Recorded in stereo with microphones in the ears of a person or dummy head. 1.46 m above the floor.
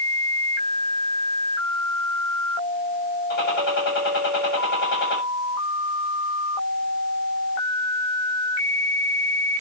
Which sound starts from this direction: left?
A gunshot, at 3.3 s.